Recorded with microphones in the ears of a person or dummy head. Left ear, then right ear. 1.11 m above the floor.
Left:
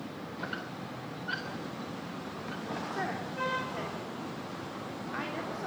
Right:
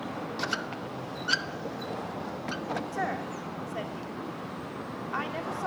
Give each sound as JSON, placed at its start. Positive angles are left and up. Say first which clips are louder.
{"t": 0.4, "sound": "a squeak", "louder": "right 6 dB", "side_deg": -85, "distance_m": 0.8}
{"t": 2.9, "sound": "a woman speaking", "louder": "right 3 dB", "side_deg": -40, "distance_m": 2.5}